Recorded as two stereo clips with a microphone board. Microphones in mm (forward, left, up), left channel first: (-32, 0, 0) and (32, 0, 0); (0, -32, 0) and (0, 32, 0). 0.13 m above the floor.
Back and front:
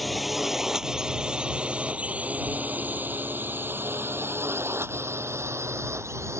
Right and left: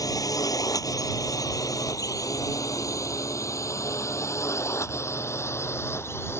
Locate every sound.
0.0 s a drone: 90° right; by 6.4 s 40° right